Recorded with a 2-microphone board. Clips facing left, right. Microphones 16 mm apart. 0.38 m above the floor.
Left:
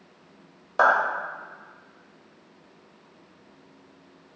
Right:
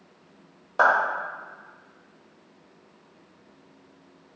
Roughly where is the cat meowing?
I don't hear a cat meowing.